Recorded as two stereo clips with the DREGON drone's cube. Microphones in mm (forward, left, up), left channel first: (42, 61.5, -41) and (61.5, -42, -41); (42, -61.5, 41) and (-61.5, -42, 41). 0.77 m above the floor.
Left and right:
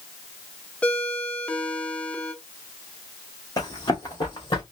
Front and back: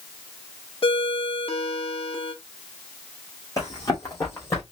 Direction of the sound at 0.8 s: 20° left.